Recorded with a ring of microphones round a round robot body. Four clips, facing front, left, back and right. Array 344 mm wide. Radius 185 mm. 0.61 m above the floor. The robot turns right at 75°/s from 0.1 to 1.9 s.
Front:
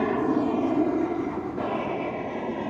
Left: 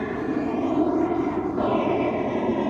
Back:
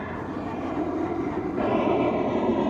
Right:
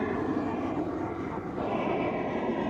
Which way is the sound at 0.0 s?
5° left.